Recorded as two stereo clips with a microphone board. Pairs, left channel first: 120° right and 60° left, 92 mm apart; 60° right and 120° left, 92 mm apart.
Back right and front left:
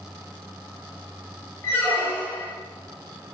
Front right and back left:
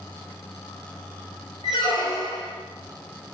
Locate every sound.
1.6 s a squeak: 55° right, 1.0 m